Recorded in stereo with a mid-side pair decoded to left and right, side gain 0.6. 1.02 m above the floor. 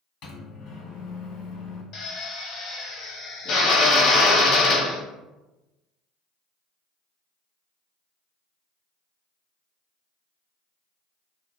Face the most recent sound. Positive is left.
turn(degrees=55)